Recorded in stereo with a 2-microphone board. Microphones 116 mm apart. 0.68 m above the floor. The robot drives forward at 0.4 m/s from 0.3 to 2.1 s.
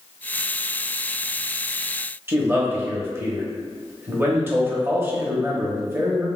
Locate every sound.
2.3 s a man speaking: 20° right (ahead or behind), 0.8 m